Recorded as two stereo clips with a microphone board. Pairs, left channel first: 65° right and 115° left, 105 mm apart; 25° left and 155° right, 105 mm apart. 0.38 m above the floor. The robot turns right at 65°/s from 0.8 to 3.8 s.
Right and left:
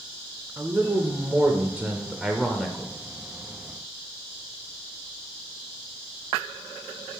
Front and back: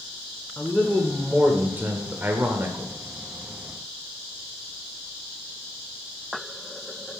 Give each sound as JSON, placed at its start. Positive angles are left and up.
{"t": 0.6, "sound": "a man speaking", "azimuth_deg": 95, "distance_m": 0.8}